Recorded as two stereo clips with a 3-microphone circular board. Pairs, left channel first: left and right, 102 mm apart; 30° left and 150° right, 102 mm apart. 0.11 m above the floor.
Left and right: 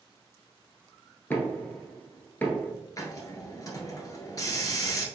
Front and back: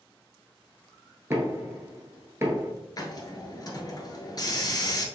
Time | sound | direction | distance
1.3 | knocking | 155° left | 1.1 m
3.0 | a hiss | 55° left | 1.0 m